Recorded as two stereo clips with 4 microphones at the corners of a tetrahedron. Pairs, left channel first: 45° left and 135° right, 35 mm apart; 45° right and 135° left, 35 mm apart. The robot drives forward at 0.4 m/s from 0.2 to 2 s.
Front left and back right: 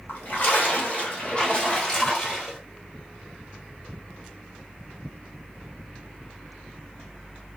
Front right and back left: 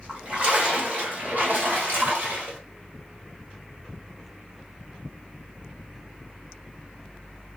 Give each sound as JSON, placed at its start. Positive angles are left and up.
{"t": 0.1, "sound": "a splash", "azimuth_deg": 80, "distance_m": 1.0}